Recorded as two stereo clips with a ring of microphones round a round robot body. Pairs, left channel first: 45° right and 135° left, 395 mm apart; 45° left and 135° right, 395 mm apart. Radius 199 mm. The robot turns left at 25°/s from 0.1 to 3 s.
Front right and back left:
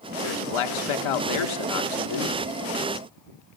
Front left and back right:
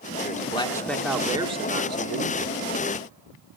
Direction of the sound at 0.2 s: 25° right.